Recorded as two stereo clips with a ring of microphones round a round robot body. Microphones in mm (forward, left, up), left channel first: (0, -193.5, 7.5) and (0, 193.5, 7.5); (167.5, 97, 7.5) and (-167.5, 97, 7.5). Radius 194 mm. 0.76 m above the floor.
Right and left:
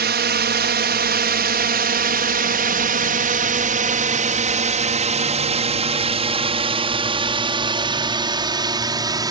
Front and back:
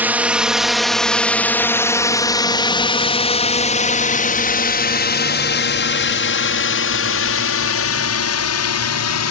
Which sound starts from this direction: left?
A drone, at 0.0 s.